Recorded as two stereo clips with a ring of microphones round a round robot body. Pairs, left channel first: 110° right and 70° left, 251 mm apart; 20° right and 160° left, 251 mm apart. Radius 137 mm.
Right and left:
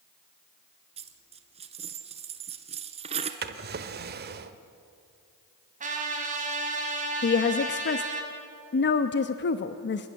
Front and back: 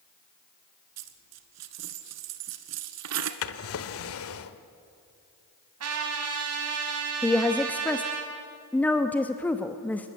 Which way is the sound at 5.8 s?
130° left.